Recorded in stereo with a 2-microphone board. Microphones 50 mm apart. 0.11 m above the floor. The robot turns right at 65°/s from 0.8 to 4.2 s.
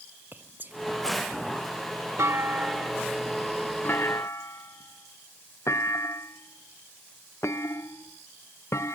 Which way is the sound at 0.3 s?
35° right (ahead or behind).